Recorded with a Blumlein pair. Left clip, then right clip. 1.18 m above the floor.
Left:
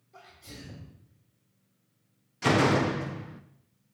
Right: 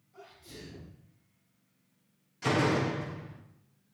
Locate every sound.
0.1 s a sneeze: 30° left, 3.5 m
2.4 s a door slam: 20° left, 0.8 m